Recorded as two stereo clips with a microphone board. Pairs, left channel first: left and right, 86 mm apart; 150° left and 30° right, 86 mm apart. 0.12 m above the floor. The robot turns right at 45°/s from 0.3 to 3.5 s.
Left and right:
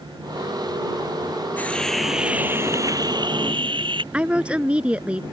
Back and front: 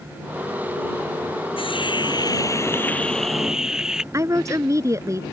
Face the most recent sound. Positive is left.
turn(degrees=-20)